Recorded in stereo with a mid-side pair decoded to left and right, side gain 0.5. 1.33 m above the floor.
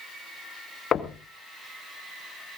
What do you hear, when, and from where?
0.9 s knocking: 40° left, 1.8 m